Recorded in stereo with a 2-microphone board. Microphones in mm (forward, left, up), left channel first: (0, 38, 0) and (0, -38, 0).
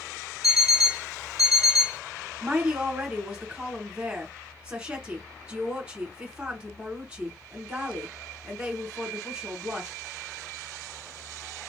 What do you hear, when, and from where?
0.4 s an alarm clock: 55° left (ahead or behind), 0.9 m
2.4 s a woman speaking: 15° right (ahead or behind), 2.5 m